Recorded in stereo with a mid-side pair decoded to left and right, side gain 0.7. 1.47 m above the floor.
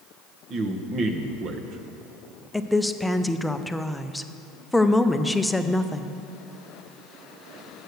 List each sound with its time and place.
0.5 s a man speaking: 45° right, 1.1 m
2.5 s a woman speaking: 5° left, 0.5 m